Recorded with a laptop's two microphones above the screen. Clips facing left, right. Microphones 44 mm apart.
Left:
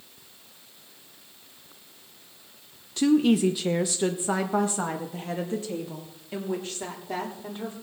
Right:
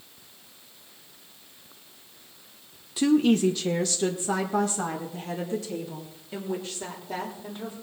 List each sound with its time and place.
3.0 s a woman speaking: 5° right (ahead or behind), 0.7 m; by 7.8 s 30° left (ahead or behind), 4 m